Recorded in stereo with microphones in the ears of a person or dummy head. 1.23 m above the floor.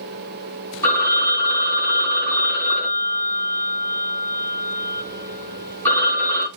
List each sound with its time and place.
0.8 s a phone ringing: 10° left (ahead or behind), 1.9 m